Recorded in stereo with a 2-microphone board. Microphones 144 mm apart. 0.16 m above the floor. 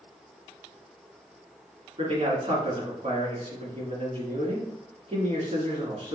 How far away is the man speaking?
About 2 m.